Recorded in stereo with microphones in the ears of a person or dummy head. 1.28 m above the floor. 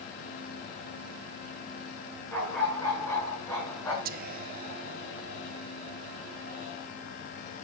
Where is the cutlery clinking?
I don't hear cutlery clinking.